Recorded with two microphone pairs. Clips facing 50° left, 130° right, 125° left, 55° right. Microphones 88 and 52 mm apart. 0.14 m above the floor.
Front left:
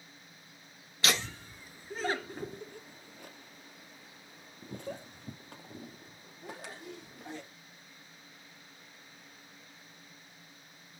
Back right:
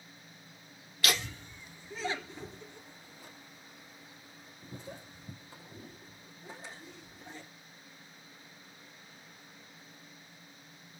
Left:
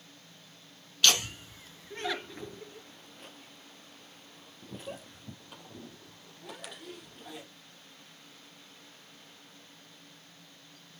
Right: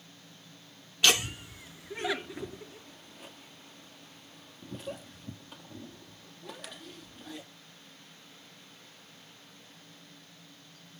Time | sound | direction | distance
1.0 | laughter | 5° left | 1.3 m